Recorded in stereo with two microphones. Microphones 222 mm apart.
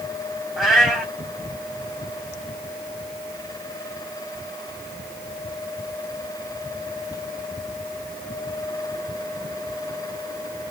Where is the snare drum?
No snare drum in this recording.